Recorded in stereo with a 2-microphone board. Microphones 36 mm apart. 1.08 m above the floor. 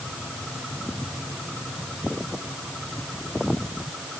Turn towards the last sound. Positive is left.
No sound to turn to.